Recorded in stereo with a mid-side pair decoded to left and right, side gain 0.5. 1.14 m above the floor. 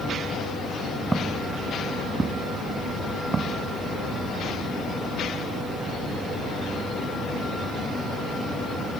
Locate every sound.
1.1 s footsteps: 20° right; by 4.2 s 45° right